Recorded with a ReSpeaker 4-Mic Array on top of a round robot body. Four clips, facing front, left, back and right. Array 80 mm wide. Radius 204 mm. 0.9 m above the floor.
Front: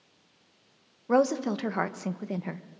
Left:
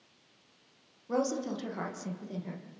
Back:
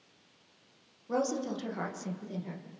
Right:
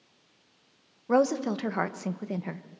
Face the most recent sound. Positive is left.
turn(degrees=-45)